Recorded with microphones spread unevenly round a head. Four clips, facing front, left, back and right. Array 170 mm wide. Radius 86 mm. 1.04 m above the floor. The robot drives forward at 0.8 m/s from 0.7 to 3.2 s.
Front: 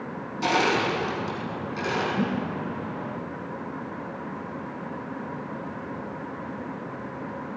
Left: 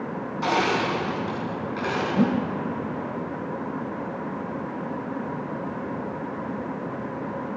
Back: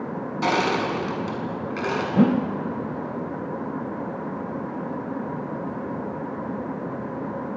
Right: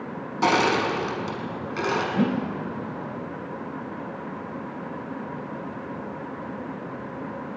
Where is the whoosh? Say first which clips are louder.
Left 2 dB, back 8 dB; 170° left, 0.8 m; by 2.5 s 175° left, 1.1 m.